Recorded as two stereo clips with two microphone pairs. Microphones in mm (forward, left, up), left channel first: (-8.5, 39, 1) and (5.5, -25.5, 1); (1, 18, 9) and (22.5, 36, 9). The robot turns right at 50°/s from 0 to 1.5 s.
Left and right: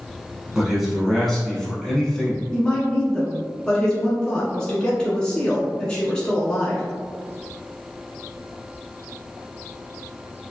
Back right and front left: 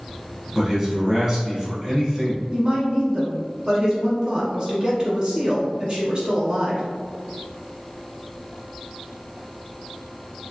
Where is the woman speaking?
40° left, 1.3 m.